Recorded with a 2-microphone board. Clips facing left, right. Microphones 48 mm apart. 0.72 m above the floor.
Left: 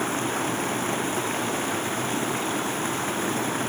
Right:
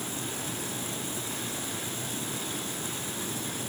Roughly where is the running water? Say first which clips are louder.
Left 10 dB; left.